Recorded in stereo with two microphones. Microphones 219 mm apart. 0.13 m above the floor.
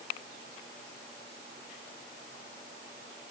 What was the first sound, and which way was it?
Only background noise.